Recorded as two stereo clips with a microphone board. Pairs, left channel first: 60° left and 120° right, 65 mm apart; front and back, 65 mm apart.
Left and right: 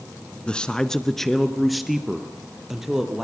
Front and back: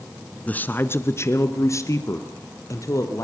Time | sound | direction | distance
0.5 | a man speaking | 15° left | 1.4 m